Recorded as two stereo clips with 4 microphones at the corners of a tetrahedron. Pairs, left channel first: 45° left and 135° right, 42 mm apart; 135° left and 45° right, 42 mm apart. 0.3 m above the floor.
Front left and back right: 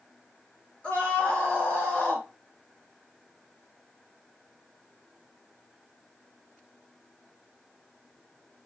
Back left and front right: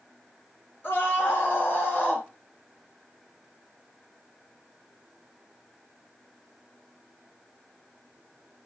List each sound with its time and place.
0.8 s a scream: 100° left, 5.5 m; by 2.3 s 85° left, 4.5 m